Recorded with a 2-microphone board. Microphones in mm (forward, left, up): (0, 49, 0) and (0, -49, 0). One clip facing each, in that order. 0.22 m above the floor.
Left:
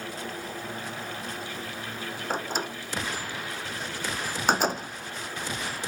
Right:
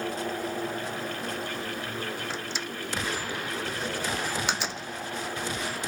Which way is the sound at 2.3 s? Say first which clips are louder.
Left 4 dB; 45° left (ahead or behind).